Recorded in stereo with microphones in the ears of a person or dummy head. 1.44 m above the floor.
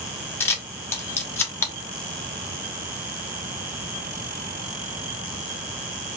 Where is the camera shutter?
15° left (ahead or behind), 0.9 m.